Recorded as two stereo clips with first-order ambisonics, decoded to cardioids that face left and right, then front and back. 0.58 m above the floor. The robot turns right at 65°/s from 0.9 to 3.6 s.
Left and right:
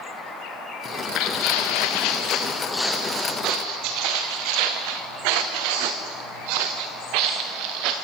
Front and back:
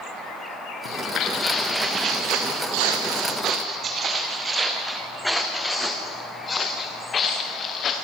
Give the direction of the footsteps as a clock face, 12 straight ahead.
11 o'clock.